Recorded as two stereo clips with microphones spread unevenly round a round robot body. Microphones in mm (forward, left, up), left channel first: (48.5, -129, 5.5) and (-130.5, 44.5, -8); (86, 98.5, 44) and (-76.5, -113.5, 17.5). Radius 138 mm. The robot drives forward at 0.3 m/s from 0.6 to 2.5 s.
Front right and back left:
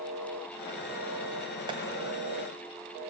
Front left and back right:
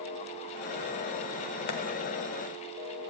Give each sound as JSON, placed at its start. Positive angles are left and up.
{"t": 1.7, "sound": "tapping", "azimuth_deg": 65, "distance_m": 1.8}